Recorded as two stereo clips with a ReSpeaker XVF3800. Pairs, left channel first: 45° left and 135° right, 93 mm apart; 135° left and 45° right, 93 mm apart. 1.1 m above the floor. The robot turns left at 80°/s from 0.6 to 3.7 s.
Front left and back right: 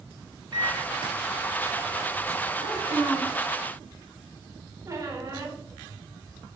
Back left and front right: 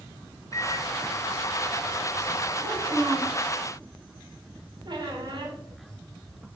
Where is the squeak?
80° right, 3 m.